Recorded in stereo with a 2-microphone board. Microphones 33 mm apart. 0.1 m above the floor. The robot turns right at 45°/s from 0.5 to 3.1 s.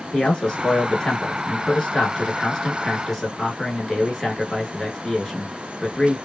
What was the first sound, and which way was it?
A man speaking, 20° left (ahead or behind).